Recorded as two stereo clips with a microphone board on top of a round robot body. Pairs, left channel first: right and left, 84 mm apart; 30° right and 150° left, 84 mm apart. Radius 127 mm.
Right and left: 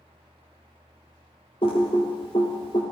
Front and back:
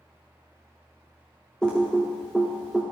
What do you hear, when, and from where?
1.6 s typing on a keyboard: 110° right, 0.5 m